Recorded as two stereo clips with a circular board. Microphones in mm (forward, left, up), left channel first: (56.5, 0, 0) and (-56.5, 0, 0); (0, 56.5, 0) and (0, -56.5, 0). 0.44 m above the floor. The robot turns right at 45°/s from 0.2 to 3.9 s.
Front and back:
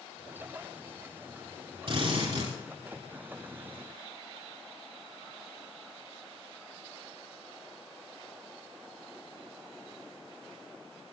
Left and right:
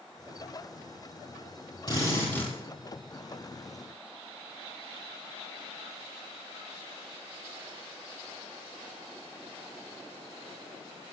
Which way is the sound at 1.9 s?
140° left.